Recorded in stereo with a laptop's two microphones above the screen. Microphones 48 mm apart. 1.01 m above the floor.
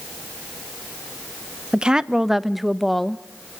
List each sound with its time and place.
1.7 s a woman speaking: 20° right (ahead or behind), 0.6 m; by 3.2 s 5° left (ahead or behind), 1.1 m